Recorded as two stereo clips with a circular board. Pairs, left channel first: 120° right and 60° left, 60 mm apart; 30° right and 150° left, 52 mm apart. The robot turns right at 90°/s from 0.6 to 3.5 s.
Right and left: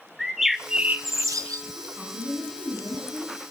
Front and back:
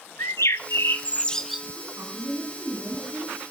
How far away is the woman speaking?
About 8 m.